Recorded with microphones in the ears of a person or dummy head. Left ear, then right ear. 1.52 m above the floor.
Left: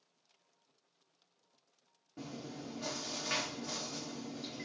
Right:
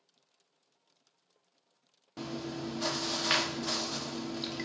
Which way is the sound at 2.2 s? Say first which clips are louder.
Right 8 dB; 55° right (ahead or behind).